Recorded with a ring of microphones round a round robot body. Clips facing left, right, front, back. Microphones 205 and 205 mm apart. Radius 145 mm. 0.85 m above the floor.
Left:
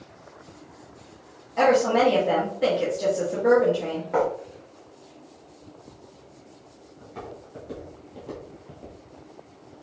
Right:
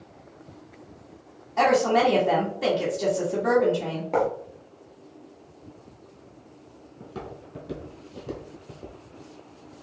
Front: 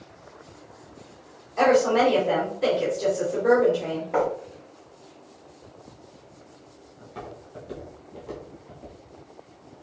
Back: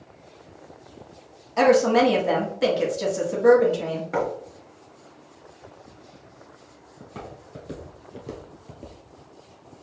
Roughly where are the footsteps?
Behind right.